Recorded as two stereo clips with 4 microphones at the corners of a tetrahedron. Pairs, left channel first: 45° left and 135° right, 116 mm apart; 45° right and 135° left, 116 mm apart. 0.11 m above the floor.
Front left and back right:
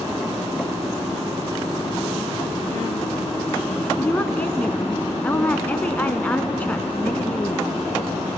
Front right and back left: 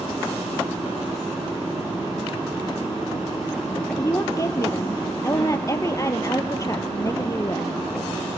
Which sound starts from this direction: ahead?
A woman speaking, at 4.0 s.